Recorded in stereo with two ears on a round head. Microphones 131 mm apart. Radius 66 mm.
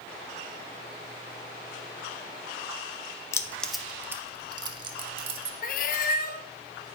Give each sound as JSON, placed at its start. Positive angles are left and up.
{"t": 3.3, "sound": "keys jangling", "side_deg": 20, "distance_m": 0.5}
{"t": 5.6, "sound": "a cat meowing", "side_deg": 65, "distance_m": 0.6}